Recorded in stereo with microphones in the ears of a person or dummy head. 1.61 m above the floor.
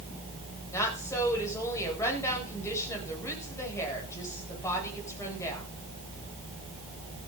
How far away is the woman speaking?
About 9 m.